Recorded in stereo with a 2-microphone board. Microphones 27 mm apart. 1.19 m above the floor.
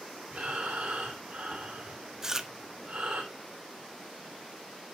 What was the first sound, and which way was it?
Breathing, 50° right (ahead or behind).